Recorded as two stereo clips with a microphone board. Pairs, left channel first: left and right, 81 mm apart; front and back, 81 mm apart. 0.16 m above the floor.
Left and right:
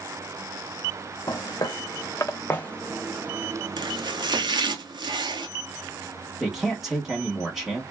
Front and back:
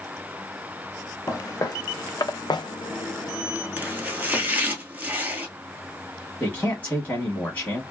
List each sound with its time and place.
1.3 s footsteps: 55° left, 1.1 m; by 4.7 s 70° right, 0.9 m
3.8 s chopping: 110° right, 0.6 m
6.4 s a man speaking: 10° right, 1.0 m